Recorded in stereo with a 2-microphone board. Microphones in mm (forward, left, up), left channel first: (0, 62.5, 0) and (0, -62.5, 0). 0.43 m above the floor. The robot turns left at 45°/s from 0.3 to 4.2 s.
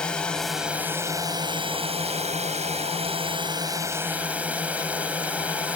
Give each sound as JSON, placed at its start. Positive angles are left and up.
{"t": 0.0, "sound": "a drone", "azimuth_deg": 10}